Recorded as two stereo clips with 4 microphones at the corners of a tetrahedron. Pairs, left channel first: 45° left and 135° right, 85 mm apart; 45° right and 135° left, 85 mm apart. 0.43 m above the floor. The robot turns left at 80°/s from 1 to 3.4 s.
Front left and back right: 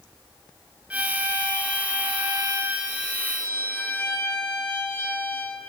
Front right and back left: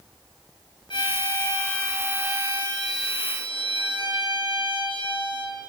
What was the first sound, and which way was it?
A violin, 60° right.